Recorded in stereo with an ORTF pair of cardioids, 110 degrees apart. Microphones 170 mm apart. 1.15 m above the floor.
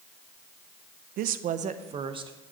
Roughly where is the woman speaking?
Right.